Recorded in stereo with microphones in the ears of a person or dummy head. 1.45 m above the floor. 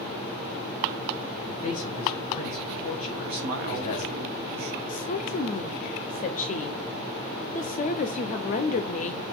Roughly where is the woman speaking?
Left.